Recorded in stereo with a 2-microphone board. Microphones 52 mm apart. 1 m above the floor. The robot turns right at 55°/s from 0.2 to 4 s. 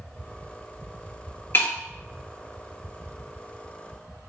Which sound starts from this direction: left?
Breaking glass, at 1.5 s.